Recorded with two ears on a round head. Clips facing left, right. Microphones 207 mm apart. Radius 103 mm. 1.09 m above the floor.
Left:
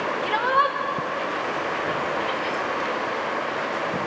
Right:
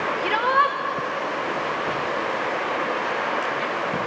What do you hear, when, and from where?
0.2 s a shout: 40° right (ahead or behind), 1.9 m